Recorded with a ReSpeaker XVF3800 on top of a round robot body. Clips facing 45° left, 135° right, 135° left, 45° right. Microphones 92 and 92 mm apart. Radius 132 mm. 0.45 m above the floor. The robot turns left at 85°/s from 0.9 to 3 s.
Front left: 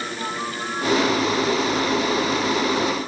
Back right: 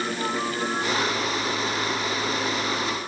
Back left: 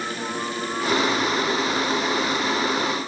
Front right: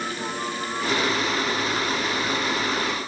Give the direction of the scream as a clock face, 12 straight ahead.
I don't hear a scream.